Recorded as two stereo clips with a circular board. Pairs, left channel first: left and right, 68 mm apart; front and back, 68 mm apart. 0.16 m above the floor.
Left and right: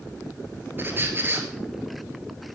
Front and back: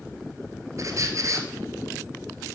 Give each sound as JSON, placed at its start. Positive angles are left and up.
{"t": 0.8, "sound": "a squeak", "azimuth_deg": -145, "distance_m": 1.4}